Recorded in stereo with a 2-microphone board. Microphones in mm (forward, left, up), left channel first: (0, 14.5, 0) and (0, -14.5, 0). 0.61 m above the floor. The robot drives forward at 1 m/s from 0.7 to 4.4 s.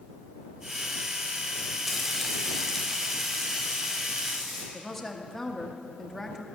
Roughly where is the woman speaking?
Centre.